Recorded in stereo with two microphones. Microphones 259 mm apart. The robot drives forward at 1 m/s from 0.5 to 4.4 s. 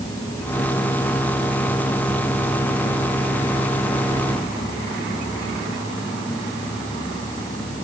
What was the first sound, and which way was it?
Only background noise.